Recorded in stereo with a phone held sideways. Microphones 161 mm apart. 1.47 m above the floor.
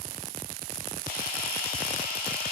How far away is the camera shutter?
About 6 m.